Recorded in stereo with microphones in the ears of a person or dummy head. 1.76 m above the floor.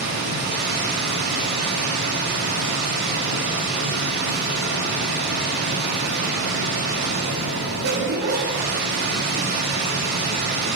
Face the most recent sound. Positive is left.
turn(degrees=-45)  # may be behind; listen again after turning